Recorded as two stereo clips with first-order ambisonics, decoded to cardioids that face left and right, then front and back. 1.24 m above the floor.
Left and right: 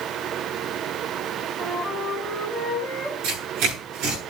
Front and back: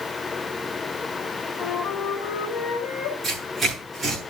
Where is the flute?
5° right, 3.5 m.